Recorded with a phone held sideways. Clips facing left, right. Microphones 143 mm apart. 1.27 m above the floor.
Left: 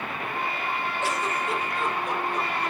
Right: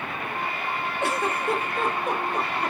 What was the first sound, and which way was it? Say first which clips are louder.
A giggle: right 4 dB; 60° right (ahead or behind).